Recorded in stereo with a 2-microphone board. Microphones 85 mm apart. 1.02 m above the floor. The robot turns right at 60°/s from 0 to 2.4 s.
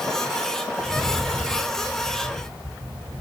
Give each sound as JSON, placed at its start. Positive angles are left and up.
{"t": 0.8, "sound": "a rattle", "azimuth_deg": -165, "distance_m": 6.5}